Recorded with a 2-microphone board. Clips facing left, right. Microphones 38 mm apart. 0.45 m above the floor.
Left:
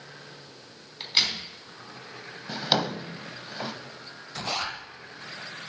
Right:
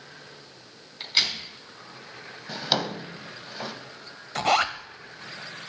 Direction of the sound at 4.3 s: 65° right (ahead or behind).